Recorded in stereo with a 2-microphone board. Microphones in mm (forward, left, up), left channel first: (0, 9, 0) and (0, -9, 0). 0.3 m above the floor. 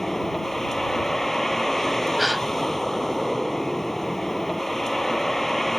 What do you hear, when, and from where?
0.0 s a vehicle: 20° left (ahead or behind)
2.2 s a gasp: 5° right (ahead or behind)